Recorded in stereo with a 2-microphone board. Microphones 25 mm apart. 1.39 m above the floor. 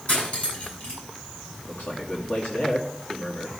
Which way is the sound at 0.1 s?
65° left (ahead or behind).